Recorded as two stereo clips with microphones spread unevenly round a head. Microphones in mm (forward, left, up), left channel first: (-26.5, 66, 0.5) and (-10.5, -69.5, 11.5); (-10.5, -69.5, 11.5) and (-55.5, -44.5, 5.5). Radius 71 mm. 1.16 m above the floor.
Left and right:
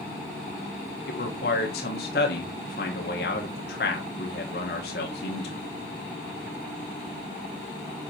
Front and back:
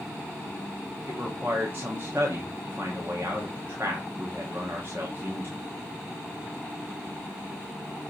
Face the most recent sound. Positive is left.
turn(degrees=85)